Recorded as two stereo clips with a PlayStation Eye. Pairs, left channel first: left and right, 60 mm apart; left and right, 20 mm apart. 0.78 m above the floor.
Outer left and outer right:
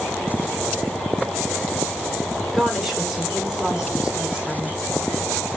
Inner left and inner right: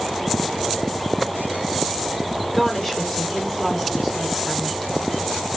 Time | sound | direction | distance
2.5 | a woman speaking | 5° right (ahead or behind) | 2.5 m